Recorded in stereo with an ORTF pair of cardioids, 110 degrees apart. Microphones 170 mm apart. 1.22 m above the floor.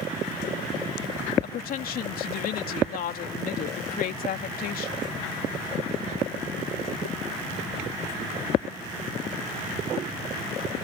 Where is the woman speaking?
60° left.